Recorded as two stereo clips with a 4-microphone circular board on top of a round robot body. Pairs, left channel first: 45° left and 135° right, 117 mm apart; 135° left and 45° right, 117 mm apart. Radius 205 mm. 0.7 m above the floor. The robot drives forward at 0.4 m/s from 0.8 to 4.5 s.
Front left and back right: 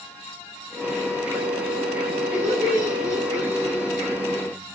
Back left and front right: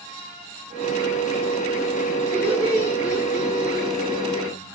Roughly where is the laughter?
Behind.